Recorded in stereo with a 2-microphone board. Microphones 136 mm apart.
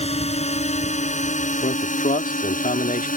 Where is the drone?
50° left (ahead or behind); by 3.2 s 85° left.